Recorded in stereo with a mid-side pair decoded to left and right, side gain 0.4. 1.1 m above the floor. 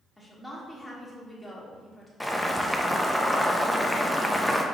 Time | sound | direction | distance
0.2 | a woman speaking | 5° left | 1.7 m
2.2 | boiling | 5° left | 0.7 m